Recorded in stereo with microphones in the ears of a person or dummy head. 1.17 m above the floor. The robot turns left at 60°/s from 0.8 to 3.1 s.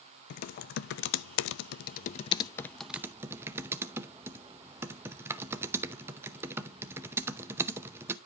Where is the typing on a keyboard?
120° left, 0.7 m; by 8.2 s 15° right, 0.7 m.